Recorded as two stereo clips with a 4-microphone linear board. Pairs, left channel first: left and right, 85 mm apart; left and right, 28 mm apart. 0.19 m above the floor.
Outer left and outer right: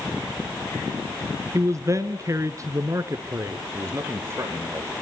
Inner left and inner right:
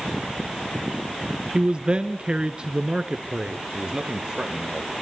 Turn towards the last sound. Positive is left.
turn(degrees=-30)  # may be behind; listen again after turning